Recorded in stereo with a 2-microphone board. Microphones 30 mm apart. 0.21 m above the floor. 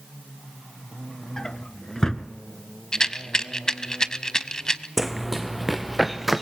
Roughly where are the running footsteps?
Centre.